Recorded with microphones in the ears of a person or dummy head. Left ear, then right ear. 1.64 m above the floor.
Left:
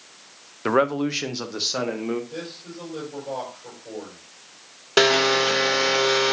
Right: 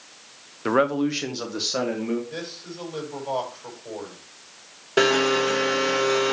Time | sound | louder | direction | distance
0.7 | a man speaking | even | 15° left (ahead or behind) | 0.6 m
2.3 | a man speaking | right 1 dB | 50° right (ahead or behind) | 5 m
5.0 | a blender | left 2 dB | 35° left (ahead or behind) | 0.9 m